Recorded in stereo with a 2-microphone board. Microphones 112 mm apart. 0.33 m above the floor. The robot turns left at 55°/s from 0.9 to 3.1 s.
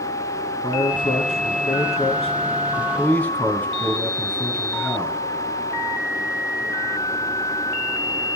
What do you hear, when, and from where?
0.6 s a man speaking: 135° left, 3 m; by 5.2 s 15° left, 3 m